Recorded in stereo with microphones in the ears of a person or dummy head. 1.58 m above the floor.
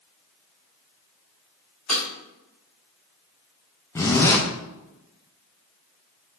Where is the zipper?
10° left (ahead or behind), 0.9 m.